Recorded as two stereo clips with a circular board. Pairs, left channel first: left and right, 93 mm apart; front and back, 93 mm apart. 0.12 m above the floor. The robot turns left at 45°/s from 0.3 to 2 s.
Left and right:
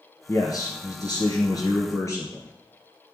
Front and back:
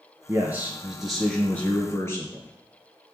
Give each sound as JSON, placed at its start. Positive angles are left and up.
{"t": 0.3, "sound": "a man speaking", "azimuth_deg": 130, "distance_m": 1.8}